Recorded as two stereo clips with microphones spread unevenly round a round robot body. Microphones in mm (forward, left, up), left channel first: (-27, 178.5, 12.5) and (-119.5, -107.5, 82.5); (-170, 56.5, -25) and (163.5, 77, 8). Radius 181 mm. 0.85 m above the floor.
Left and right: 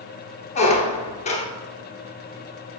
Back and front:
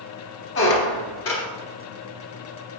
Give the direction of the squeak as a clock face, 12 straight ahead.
7 o'clock.